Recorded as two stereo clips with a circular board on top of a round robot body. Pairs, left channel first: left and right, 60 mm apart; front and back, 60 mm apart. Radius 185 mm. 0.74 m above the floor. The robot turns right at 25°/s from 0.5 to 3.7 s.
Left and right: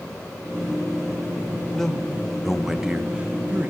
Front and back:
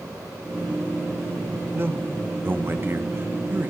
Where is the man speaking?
170° left, 1.2 m; by 3.7 s 140° right, 1.2 m.